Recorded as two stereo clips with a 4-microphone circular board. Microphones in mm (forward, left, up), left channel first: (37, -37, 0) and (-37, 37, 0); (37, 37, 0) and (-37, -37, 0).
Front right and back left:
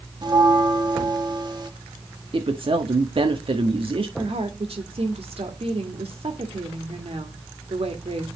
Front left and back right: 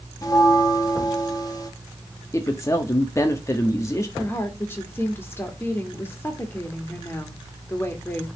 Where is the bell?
95° left, 1.6 m.